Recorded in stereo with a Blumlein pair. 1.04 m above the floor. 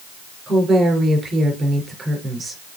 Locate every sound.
0.5 s a woman speaking: 15° right, 4 m